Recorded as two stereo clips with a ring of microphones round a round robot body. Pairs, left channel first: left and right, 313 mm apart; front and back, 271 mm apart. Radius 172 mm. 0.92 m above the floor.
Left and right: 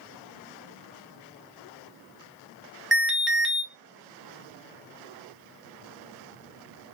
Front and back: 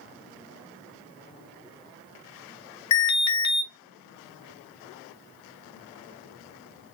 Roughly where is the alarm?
Ahead.